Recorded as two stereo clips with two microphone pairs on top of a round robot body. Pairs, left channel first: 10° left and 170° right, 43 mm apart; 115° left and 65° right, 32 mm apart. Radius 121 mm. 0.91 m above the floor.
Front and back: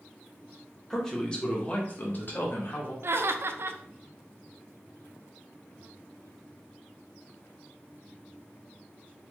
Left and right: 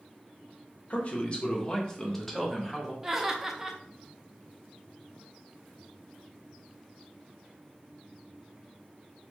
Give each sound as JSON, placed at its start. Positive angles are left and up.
{"t": 0.9, "sound": "a man speaking", "azimuth_deg": 90, "distance_m": 1.1}
{"t": 3.0, "sound": "laughter", "azimuth_deg": -145, "distance_m": 0.5}